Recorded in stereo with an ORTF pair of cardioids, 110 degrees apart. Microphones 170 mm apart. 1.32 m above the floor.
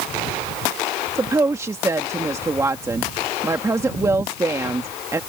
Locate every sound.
1.1 s a woman speaking: 15° right